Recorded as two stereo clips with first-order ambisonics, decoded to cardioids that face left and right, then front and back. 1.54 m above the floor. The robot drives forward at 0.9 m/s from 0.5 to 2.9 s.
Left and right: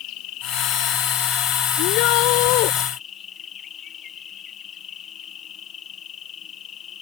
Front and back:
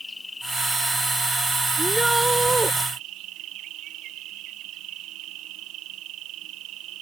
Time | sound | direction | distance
0.0 | an insect | 80° left | ?
1.8 | a shout | 95° left | ?